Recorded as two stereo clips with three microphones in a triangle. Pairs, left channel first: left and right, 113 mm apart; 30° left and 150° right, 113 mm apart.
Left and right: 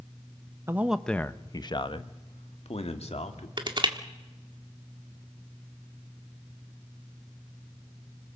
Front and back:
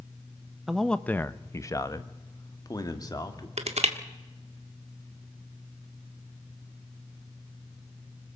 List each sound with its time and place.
0.7 s a man speaking: 65° right, 0.7 m; by 3.5 s 80° left, 2.5 m
3.6 s crushing: 135° right, 1.6 m